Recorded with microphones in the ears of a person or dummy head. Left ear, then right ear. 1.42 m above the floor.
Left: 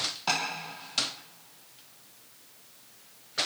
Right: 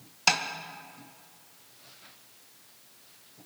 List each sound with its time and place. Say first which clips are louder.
0.3 s tapping: right 5 dB; 85° right, 1.3 m